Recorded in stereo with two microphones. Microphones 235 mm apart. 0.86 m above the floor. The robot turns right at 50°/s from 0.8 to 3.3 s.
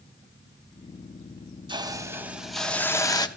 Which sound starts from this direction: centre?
A hiss, at 1.7 s.